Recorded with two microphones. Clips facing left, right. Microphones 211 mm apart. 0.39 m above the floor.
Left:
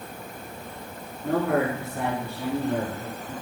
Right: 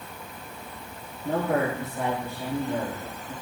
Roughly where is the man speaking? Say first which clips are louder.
Left 2 dB; left.